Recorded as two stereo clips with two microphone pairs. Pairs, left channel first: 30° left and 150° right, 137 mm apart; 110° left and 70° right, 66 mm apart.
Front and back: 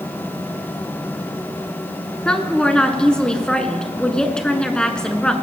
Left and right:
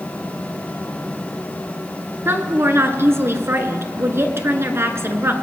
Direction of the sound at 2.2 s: 50° right.